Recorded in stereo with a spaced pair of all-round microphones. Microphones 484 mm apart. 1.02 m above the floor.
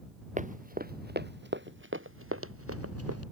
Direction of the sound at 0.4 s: 15° right (ahead or behind).